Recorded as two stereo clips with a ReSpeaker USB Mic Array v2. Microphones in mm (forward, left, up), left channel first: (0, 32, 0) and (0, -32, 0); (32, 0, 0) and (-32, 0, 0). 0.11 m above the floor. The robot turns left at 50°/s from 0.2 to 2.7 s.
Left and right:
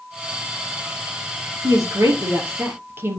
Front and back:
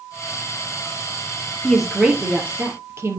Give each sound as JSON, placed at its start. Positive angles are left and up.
{"t": 1.6, "sound": "a woman speaking", "azimuth_deg": -85, "distance_m": 2.5}